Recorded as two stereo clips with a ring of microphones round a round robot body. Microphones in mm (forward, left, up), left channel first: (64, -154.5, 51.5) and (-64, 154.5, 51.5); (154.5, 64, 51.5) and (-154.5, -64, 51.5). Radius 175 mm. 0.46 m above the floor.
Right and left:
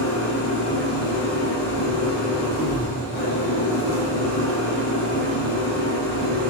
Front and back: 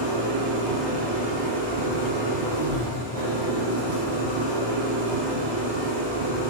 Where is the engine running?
130° right, 7 m.